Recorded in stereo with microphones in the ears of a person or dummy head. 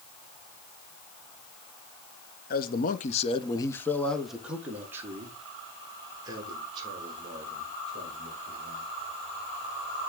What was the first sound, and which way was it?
A man speaking, 50° left (ahead or behind).